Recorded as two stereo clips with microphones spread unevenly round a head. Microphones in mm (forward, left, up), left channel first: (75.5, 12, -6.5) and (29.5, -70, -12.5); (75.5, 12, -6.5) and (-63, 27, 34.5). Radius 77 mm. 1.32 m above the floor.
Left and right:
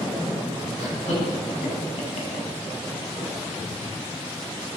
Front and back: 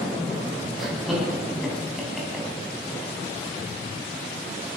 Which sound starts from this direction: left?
Laughter, at 0.8 s.